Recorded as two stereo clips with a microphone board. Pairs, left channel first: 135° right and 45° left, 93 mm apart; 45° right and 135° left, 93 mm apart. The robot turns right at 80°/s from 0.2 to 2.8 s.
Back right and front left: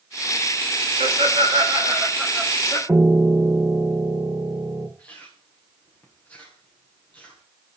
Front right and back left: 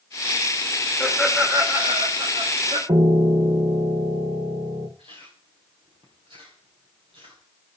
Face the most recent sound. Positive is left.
turn(degrees=150)